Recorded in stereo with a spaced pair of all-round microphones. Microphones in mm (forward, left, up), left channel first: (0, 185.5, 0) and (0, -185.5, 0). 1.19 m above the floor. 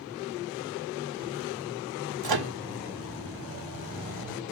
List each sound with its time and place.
2.2 s a microwave: 75° right (ahead or behind), 0.5 m